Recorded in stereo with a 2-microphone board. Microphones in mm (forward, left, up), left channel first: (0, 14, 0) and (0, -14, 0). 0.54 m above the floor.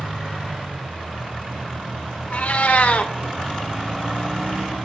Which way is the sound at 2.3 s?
60° left (ahead or behind).